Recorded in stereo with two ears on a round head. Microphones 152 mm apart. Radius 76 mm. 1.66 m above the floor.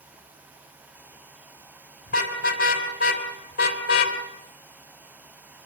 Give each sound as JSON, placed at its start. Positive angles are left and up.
{"t": 2.1, "sound": "a car horn", "side_deg": 55, "distance_m": 4.5}